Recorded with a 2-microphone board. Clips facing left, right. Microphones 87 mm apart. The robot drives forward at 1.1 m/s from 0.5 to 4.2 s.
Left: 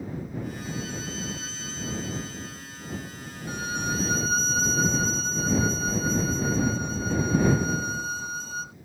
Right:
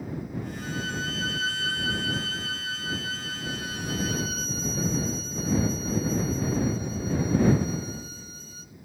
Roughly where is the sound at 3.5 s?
Left.